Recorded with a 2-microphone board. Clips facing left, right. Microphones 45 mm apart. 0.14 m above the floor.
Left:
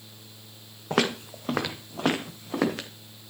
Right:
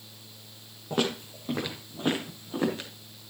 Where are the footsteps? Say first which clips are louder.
Left 3 dB; 80° left, 2 m; by 2.9 s 85° left, 3 m.